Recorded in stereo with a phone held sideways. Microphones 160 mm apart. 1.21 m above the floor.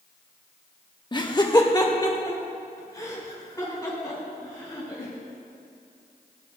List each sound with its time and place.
1.1 s laughter: 30° left (ahead or behind), 0.9 m; by 5.1 s 25° left (ahead or behind), 6.5 m